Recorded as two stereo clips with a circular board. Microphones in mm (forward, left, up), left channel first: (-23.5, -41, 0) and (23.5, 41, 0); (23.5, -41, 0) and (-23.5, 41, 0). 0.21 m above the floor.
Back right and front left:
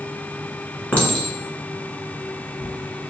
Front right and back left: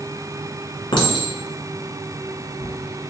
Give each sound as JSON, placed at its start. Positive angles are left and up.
{"t": 0.9, "sound": "a clink", "azimuth_deg": -50, "distance_m": 1.7}